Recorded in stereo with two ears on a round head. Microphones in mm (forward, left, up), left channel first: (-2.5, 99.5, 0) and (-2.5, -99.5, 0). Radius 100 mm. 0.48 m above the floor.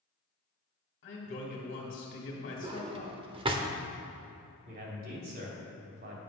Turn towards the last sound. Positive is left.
turn(degrees=-45)  # may be behind; listen again after turning